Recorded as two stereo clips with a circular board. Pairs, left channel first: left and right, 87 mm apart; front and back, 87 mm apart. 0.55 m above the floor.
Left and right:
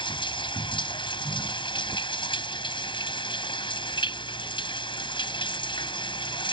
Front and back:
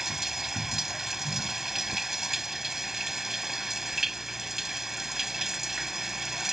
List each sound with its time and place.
0.0 s running water: 95° left